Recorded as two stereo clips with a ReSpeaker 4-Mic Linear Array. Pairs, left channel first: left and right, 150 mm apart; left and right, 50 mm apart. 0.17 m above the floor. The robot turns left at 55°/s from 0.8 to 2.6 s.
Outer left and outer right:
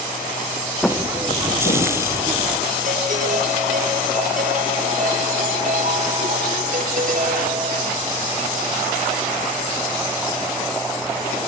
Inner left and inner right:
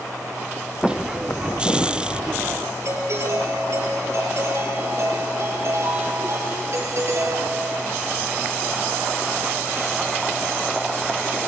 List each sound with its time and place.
0.8 s footsteps: 5° left (ahead or behind), 1.9 m; by 2.5 s 60° left (ahead or behind), 2.5 m
2.9 s a doorbell: 60° right (ahead or behind), 5.5 m